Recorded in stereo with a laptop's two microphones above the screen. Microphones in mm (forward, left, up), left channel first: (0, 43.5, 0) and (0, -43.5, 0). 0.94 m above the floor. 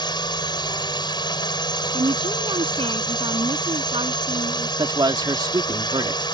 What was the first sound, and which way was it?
A drone, 60° left (ahead or behind).